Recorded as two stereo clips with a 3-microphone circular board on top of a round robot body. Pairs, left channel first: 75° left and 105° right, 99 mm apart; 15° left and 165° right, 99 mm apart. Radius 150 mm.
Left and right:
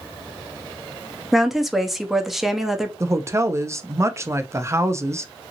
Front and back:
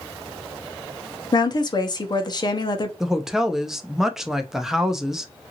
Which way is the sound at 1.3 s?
15° right.